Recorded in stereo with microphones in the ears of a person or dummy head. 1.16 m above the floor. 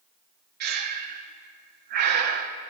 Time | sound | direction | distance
0.6 | breathing | 45° right (ahead or behind) | 0.5 m